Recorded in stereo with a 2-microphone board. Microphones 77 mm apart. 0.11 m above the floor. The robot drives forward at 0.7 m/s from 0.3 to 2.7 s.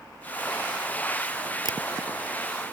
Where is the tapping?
55° left (ahead or behind); by 1.8 s 50° left (ahead or behind).